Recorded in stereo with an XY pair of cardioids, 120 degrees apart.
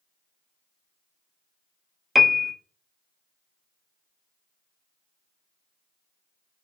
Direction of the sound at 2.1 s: 10° right.